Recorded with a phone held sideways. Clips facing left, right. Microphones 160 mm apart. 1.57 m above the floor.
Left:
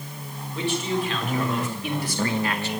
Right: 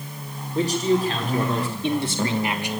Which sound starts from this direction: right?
A man speaking, at 0.6 s.